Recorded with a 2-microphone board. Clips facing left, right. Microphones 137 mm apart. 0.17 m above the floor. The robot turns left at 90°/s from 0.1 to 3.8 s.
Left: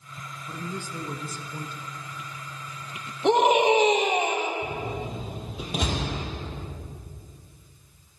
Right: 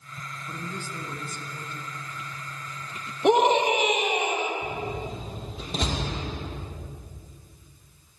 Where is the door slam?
10° left (ahead or behind), 4.5 m.